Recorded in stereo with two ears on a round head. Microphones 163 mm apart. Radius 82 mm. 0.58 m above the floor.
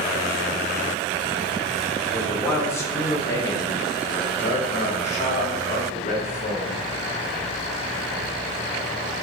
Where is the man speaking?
10° left (ahead or behind), 2 m; by 6.8 s 40° left (ahead or behind), 1.7 m.